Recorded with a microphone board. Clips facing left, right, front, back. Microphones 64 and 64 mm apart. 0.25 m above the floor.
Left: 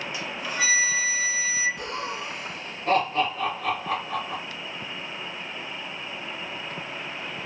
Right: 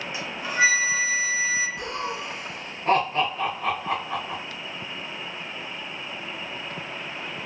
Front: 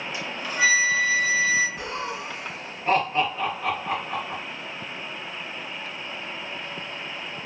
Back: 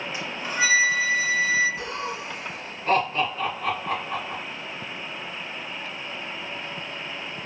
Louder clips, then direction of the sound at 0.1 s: Right 6 dB, front 1 dB; 140° right.